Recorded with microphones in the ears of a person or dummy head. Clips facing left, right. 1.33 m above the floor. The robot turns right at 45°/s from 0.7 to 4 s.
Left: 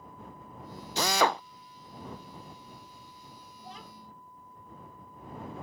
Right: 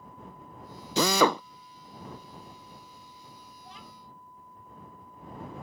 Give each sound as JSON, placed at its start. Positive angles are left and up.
{"t": 1.0, "sound": "a drill", "side_deg": -65}
{"t": 3.6, "sound": "a child speaking", "side_deg": 30}